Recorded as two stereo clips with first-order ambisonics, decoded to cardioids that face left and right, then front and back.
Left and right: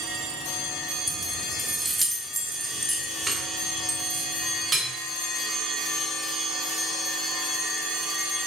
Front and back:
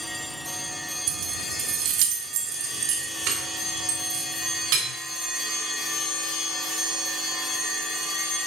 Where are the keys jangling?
170° left, 0.6 m; by 4.8 s 170° right, 3 m.